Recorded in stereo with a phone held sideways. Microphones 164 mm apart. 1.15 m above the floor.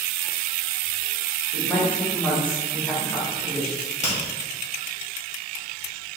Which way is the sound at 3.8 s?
45° left (ahead or behind).